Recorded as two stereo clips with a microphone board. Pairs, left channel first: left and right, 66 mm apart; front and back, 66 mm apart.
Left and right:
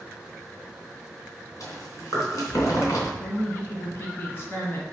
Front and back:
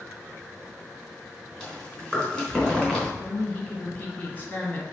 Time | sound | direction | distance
1.6 | chewing | 80° left | 3 m
3.2 | a woman speaking | 55° left | 1.4 m